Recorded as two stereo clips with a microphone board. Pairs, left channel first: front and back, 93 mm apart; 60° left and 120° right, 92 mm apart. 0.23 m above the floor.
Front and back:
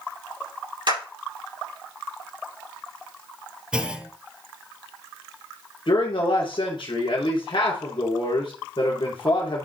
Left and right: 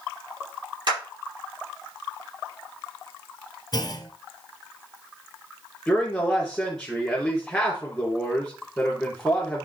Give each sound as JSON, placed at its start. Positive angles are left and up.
{"t": 0.9, "sound": "a clap", "azimuth_deg": -150, "distance_m": 5.0}
{"t": 3.7, "sound": "a clunk", "azimuth_deg": 100, "distance_m": 1.0}
{"t": 5.9, "sound": "a man speaking", "azimuth_deg": -25, "distance_m": 3.0}